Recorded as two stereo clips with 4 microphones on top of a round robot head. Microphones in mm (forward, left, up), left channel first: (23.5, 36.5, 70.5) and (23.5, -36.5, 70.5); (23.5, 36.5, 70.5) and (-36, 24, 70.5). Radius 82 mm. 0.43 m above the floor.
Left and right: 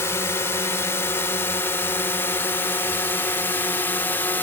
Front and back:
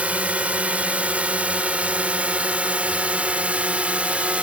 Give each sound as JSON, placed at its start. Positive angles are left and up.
{"t": 0.0, "sound": "a drone", "azimuth_deg": 130}